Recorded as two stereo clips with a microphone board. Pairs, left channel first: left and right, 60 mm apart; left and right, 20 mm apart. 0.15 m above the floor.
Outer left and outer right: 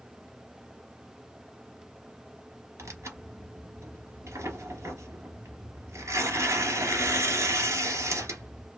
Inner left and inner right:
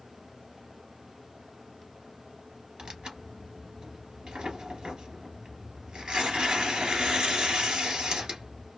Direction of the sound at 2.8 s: 60° right (ahead or behind).